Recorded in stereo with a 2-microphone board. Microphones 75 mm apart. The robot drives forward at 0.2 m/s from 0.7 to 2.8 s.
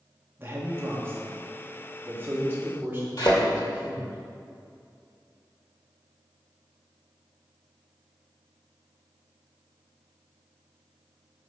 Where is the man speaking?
30° right (ahead or behind), 1.6 m; by 4.2 s 25° right (ahead or behind), 2.0 m.